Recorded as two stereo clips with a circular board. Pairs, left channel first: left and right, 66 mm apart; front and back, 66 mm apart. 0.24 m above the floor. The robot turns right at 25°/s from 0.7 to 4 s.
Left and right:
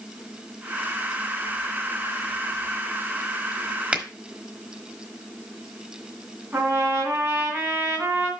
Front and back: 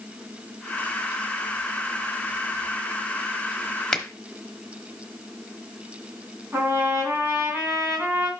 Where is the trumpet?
135° right, 2.5 m.